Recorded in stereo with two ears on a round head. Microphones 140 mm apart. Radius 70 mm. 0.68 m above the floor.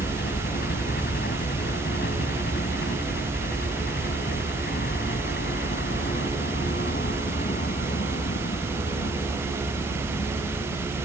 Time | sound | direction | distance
0.0 | a helicopter | 65° left (ahead or behind) | ?